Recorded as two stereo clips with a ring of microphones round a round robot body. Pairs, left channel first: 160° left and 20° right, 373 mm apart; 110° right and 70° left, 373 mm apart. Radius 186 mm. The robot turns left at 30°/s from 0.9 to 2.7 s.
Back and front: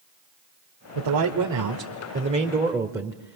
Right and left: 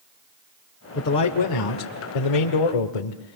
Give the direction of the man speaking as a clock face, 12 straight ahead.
2 o'clock.